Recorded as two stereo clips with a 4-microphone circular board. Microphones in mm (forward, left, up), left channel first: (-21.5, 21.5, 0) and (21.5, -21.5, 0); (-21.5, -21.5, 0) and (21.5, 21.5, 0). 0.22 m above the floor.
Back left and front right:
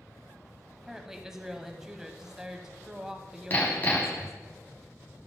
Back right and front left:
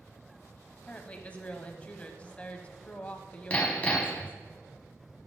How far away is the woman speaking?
About 1.0 m.